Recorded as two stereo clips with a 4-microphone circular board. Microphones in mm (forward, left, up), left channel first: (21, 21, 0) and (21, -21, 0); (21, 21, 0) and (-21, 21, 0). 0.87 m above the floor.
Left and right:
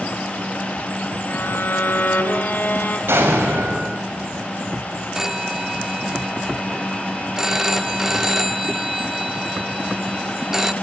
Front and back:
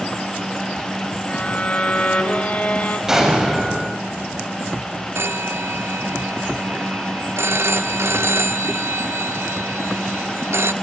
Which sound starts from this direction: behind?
A phone ringing, at 5.2 s.